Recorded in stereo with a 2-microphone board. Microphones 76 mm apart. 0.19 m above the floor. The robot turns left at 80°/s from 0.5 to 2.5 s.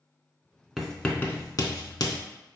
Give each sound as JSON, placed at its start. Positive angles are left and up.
{"t": 0.8, "sound": "writing", "side_deg": -5, "distance_m": 0.6}